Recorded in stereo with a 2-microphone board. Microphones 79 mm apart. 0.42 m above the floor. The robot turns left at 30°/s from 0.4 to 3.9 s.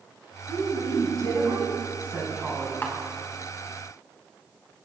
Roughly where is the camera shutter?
Left.